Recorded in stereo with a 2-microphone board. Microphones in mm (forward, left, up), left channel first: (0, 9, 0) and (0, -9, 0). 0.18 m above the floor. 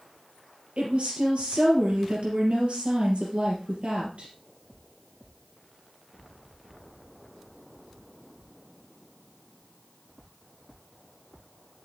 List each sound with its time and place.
0.8 s a woman speaking: 70° right (ahead or behind), 4 m